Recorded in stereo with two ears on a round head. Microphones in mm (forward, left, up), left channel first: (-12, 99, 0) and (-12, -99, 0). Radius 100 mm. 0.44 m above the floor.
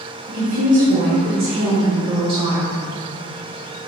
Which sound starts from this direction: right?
A woman speaking, at 0.3 s.